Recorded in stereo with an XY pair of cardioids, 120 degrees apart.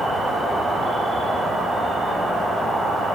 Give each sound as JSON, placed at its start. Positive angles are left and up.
{"t": 0.0, "sound": "an insect", "azimuth_deg": -20, "distance_m": 2.0}